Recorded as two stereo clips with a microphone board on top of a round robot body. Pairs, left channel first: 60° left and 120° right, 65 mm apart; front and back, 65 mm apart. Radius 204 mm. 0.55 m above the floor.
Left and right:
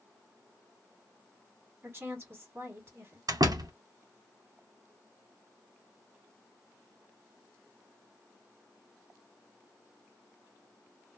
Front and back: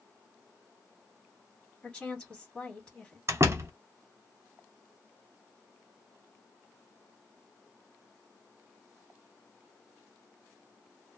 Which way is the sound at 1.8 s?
65° right.